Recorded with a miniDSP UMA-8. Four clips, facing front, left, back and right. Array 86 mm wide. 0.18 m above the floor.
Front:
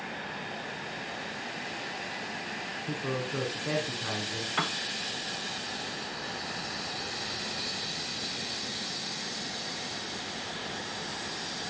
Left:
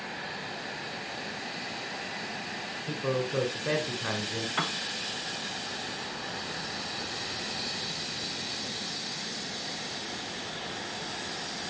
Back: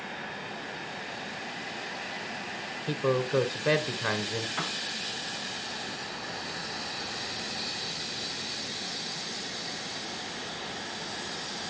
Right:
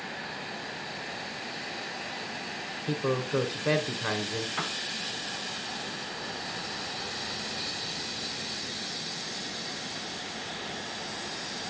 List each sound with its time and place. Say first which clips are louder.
2.9 s a man speaking: right 2 dB, back 7 dB; 160° right, 1.2 m
4.6 s a piano: left 2 dB, front 3 dB; 35° left, 0.5 m